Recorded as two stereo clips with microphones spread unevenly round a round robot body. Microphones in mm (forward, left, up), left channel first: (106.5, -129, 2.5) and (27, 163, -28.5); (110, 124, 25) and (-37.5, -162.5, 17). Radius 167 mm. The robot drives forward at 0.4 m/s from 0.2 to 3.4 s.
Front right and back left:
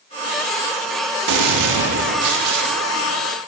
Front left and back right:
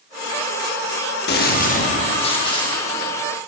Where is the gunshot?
125° left, 1.2 m; by 3.2 s 145° left, 1.7 m.